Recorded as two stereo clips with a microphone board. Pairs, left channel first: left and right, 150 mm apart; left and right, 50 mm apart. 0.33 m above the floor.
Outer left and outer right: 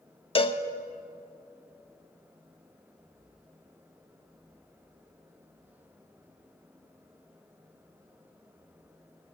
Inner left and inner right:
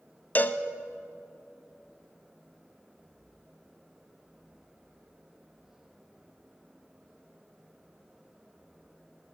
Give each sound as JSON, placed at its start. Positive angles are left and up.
{"t": 0.3, "sound": "a cowbell", "side_deg": 35, "distance_m": 0.7}